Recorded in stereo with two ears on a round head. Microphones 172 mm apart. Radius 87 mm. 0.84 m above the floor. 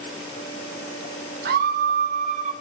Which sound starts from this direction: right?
A scream, at 1.4 s.